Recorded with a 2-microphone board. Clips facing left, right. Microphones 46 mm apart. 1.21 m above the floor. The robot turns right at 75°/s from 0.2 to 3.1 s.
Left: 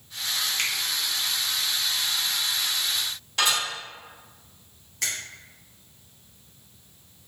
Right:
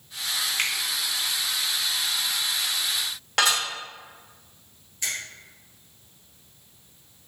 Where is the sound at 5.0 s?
75° left (ahead or behind), 1.1 m.